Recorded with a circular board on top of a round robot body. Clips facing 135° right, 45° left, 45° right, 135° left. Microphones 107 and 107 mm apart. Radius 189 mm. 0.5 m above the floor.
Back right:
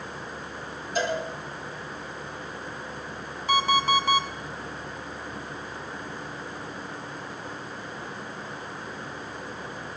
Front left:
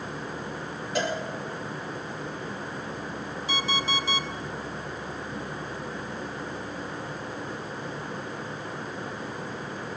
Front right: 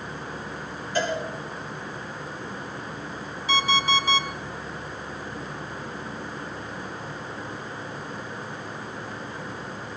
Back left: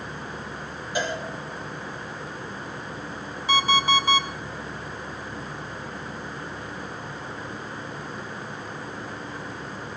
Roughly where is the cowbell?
Ahead left.